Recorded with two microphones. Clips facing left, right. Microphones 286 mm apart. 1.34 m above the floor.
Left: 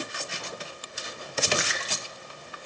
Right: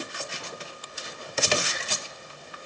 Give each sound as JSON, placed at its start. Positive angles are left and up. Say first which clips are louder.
{"t": 1.6, "sound": "a splash", "louder": "even", "side_deg": 80, "distance_m": 0.8}